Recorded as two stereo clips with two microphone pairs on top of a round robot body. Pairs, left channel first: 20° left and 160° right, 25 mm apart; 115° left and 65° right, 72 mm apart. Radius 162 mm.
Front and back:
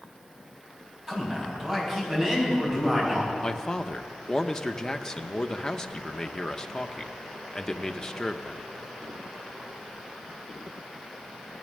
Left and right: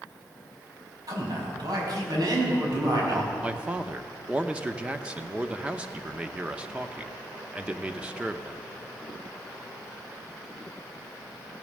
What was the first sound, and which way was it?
A man speaking, 90° right.